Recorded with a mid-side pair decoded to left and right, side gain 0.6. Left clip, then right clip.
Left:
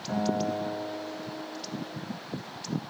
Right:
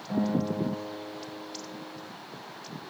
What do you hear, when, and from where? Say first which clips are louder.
0.1 s a guitar: left 1 dB; 30° left, 1.2 m